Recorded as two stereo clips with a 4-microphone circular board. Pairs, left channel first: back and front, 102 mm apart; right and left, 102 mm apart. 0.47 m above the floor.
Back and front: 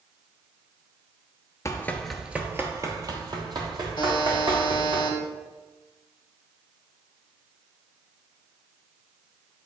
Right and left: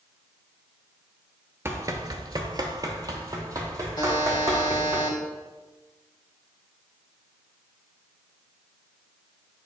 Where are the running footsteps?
140° left, 0.5 m; by 5.0 s 30° left, 2.0 m.